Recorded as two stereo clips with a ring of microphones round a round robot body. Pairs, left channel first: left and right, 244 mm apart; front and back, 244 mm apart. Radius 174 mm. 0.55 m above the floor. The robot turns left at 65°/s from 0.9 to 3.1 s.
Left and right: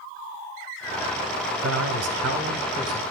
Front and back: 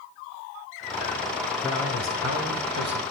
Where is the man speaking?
85° right, 2.0 m; by 3.0 s 175° right, 2.0 m.